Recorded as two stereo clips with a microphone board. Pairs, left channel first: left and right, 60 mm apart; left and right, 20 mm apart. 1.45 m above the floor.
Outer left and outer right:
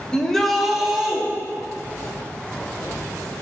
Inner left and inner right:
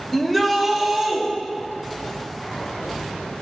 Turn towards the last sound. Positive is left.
turn(degrees=-15)  # may be behind; listen again after turning